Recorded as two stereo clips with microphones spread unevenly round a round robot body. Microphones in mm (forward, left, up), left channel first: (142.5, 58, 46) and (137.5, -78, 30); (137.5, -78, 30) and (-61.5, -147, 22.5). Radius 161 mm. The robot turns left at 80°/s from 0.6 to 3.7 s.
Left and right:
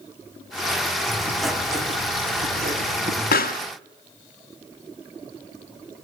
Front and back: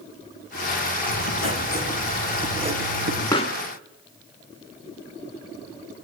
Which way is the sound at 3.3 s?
100° left.